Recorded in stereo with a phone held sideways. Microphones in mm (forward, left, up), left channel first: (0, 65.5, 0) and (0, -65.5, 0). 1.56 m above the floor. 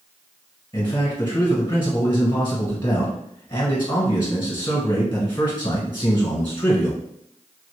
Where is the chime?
I don't hear a chime.